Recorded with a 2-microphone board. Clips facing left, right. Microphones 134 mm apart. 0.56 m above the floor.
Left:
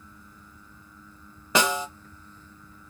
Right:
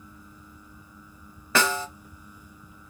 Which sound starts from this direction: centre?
A snare drum, at 1.6 s.